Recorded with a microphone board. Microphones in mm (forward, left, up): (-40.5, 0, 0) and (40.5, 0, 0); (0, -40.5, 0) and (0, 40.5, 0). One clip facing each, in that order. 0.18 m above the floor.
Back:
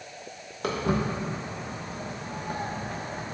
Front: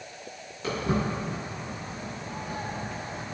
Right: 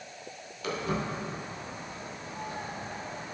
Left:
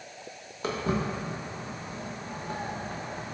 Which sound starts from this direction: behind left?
Footsteps, at 0.6 s.